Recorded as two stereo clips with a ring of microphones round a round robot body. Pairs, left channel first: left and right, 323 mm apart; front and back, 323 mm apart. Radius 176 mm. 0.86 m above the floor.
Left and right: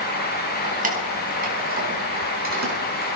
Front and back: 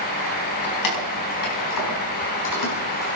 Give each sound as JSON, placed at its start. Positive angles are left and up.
{"t": 0.6, "sound": "keys jangling", "azimuth_deg": -25, "distance_m": 4.5}